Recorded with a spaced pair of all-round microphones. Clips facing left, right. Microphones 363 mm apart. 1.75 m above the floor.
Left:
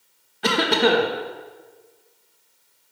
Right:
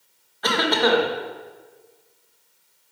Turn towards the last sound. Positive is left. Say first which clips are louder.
# left 2 dB
turn(degrees=40)  # may be behind; listen again after turning